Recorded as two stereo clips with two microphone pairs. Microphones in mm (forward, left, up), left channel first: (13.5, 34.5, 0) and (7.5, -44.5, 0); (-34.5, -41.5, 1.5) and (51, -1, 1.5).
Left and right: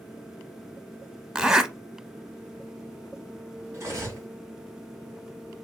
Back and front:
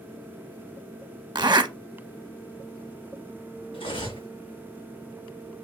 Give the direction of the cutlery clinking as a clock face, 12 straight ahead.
5 o'clock.